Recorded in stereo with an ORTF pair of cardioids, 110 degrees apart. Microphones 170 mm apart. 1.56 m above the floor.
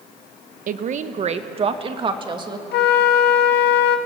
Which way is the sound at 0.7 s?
55° right.